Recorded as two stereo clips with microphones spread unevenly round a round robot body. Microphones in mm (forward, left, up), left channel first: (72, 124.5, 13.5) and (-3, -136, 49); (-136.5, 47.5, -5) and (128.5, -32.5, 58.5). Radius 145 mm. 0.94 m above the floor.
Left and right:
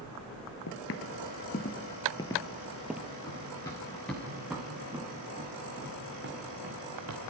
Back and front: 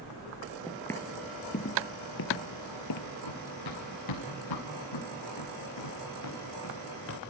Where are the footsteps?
60° left, 1.1 m; by 3.1 s straight behind, 1.3 m.